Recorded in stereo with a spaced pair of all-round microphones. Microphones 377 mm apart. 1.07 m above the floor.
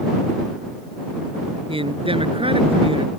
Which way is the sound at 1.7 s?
15° right (ahead or behind).